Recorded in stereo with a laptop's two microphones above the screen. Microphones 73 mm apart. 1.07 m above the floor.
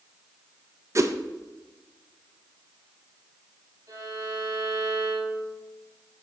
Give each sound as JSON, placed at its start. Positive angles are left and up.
{"t": 0.9, "sound": "a whoosh", "side_deg": -45, "distance_m": 0.5}
{"t": 3.9, "sound": "a violin", "side_deg": -50, "distance_m": 5.0}